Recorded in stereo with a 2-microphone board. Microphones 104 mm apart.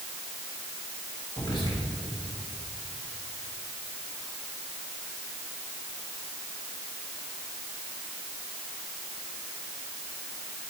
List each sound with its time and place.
1.4 s whispering: 50° left (ahead or behind), 1.7 m